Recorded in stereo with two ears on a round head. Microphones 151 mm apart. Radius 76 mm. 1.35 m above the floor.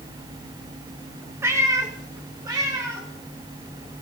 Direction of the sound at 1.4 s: 15° right (ahead or behind).